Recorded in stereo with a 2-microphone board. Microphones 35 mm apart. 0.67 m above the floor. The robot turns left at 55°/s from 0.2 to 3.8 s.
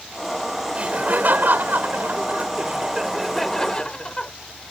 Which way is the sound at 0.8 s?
45° right.